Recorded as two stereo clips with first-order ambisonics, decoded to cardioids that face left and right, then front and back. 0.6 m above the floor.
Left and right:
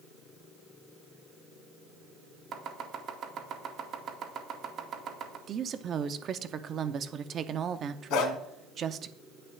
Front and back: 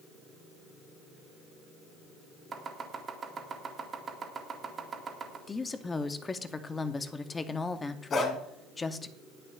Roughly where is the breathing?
I don't hear breathing.